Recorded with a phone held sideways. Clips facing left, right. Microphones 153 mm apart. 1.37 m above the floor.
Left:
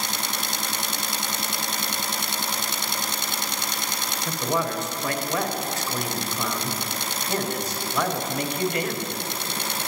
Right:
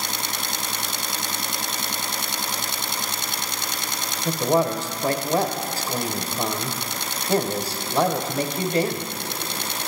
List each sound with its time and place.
4.2 s a man speaking: 30° right (ahead or behind), 0.7 m